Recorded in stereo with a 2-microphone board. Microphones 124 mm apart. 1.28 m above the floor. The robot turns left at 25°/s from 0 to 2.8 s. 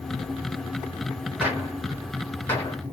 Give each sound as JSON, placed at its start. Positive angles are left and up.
{"t": 1.4, "sound": "a gunshot", "side_deg": -10, "distance_m": 1.4}